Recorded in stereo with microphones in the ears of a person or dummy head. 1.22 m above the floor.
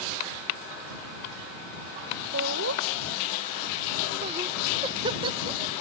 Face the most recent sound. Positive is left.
turn(degrees=-15)  # may be behind; listen again after turning